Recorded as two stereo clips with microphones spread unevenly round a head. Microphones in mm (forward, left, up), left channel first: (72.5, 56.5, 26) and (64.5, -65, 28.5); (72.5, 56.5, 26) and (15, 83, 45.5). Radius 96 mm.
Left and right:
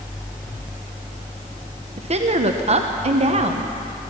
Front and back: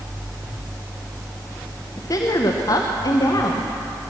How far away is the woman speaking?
About 1.0 m.